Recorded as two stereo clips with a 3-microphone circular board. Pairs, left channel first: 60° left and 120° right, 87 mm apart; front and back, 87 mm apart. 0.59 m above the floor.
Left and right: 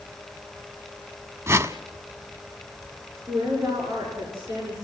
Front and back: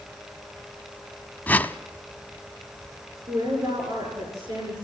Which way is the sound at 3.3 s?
175° right.